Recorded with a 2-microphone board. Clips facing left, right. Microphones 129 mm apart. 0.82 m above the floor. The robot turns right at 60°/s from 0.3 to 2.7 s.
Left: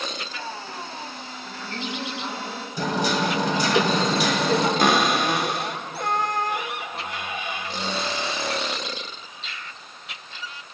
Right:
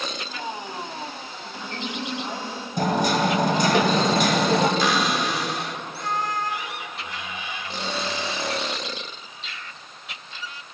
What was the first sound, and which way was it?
A woman speaking, 170° right.